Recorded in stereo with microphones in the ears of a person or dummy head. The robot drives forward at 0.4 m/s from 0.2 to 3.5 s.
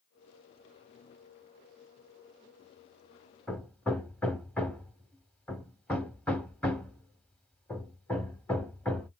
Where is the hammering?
10° left (ahead or behind), 1.0 m.